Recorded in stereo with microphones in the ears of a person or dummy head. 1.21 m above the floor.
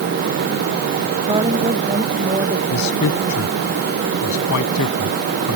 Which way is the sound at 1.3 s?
30° right (ahead or behind).